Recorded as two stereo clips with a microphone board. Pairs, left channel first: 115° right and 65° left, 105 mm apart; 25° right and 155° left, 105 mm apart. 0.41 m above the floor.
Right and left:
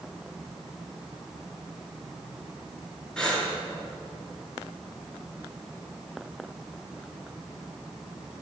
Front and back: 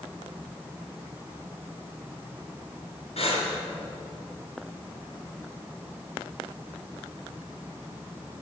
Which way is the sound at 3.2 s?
30° right.